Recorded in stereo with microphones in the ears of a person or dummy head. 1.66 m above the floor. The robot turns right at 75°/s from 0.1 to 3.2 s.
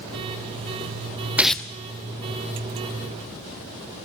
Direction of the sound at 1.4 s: 10° right (ahead or behind).